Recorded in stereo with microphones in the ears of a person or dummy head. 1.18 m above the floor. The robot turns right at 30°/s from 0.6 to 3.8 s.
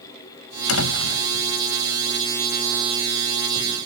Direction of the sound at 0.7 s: 80° left.